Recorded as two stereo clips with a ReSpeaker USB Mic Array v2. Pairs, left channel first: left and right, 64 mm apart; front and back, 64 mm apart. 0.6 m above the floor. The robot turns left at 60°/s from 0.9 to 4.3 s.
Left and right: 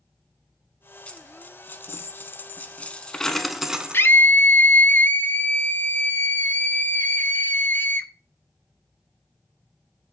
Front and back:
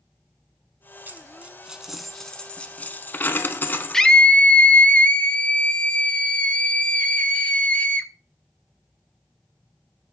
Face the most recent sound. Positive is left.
turn(degrees=60)